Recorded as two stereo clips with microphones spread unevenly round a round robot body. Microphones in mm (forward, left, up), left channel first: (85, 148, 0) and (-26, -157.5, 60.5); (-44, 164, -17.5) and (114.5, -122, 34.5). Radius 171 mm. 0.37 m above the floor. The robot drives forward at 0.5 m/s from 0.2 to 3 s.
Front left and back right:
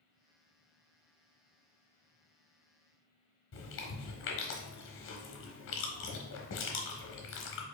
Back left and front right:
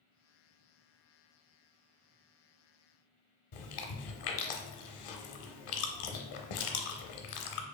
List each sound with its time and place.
3.5 s chewing: 120° left, 0.6 m